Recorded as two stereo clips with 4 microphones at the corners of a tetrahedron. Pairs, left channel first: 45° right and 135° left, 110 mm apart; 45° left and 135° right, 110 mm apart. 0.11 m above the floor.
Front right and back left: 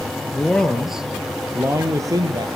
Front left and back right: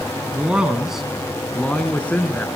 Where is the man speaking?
90° right, 1.2 m; by 2.5 s 110° left, 1.5 m.